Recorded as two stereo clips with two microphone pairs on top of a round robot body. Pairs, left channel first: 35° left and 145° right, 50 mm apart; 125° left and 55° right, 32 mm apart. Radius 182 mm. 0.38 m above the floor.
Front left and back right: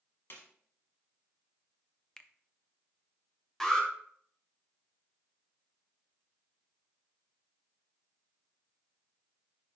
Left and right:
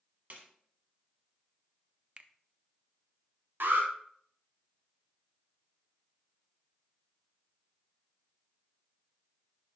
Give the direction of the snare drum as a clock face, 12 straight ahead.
12 o'clock.